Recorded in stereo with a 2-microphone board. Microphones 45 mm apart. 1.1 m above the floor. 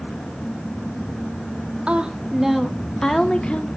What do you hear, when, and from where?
1.9 s a woman speaking: 25° right (ahead or behind), 1.7 m; by 3.7 s 25° left (ahead or behind), 2 m